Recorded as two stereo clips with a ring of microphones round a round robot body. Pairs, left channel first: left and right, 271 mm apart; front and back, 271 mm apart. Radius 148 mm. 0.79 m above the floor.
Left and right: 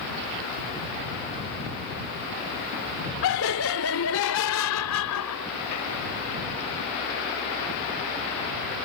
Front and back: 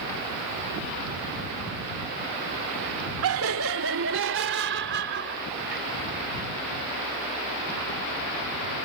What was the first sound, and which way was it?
Laughter, 135° left.